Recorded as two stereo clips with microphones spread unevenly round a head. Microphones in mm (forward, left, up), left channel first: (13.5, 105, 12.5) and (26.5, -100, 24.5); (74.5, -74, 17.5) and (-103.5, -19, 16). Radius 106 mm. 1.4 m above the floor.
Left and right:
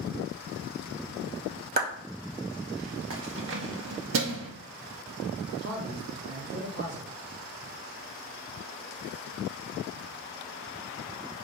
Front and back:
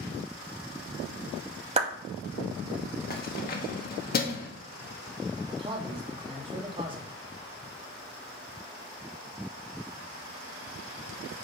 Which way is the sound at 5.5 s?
135° right.